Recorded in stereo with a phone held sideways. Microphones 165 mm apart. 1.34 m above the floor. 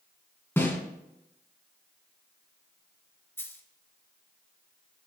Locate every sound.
0.6 s a snare drum: 15° left (ahead or behind), 2.0 m
3.4 s a dropped coin: 15° left (ahead or behind), 1.3 m